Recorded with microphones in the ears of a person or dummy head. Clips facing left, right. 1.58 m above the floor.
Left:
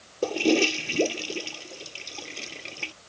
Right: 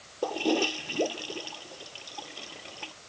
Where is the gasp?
I don't hear a gasp.